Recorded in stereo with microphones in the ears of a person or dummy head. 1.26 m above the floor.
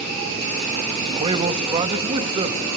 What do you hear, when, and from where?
1.1 s a man speaking: 35° right (ahead or behind), 1.4 m